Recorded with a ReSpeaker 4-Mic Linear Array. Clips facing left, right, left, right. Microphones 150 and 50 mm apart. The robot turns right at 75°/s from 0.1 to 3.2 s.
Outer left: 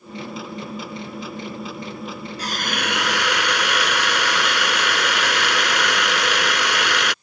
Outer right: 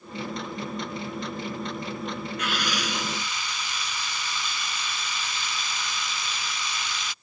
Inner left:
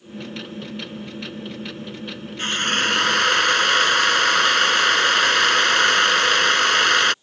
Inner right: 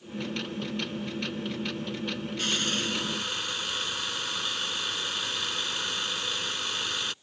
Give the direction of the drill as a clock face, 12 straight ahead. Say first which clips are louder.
Outer left 5 dB, inner left 10 dB; 11 o'clock.